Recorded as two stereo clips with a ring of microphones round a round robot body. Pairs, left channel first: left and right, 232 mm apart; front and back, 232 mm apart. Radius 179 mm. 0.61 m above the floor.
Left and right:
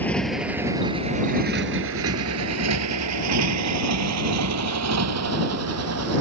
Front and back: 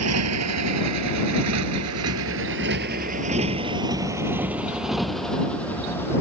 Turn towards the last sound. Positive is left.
turn(degrees=-85)